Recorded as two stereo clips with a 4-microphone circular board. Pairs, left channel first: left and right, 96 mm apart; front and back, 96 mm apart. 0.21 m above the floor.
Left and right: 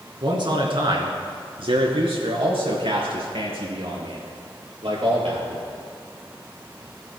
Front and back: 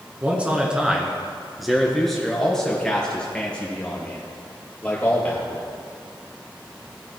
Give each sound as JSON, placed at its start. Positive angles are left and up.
{"t": 0.2, "sound": "a man speaking", "azimuth_deg": -110, "distance_m": 1.9}